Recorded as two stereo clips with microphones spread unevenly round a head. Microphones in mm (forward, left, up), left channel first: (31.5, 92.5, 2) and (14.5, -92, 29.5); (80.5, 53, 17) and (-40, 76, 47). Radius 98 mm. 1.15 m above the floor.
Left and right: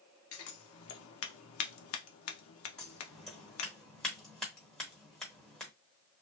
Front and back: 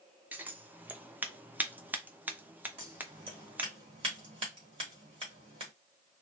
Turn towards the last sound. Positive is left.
turn(degrees=175)